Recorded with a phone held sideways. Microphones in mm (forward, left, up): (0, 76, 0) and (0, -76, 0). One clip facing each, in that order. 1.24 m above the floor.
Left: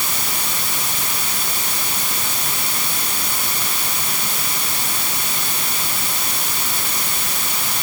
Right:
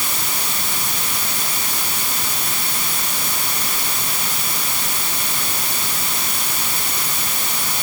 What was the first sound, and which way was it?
Only background noise.